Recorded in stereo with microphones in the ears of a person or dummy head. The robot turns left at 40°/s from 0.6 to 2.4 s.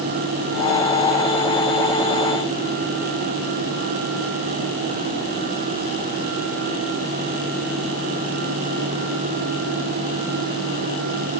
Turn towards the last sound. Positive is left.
No sound to turn to.